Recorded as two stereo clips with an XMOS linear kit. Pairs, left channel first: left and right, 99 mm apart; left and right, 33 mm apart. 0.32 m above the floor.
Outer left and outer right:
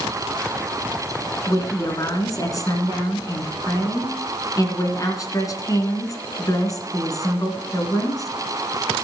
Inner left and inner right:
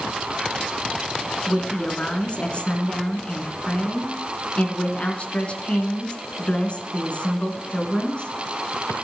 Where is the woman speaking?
35° left (ahead or behind), 3 m.